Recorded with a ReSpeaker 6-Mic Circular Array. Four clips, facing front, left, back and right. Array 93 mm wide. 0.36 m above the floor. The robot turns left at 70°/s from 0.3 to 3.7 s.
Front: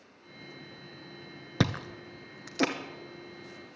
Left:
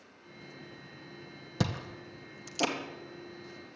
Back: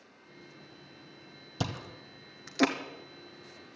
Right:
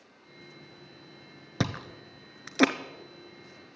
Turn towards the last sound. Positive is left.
turn(degrees=-170)